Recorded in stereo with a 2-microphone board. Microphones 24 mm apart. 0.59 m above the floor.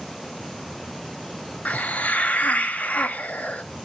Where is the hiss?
75° left (ahead or behind), 0.8 m.